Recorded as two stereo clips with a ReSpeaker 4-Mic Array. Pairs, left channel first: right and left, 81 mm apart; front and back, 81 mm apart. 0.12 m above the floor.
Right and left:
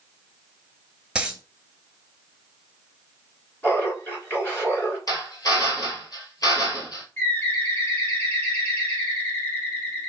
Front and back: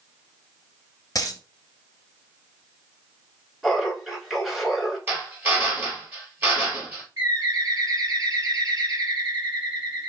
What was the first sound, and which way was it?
A dropped coin, 15° left.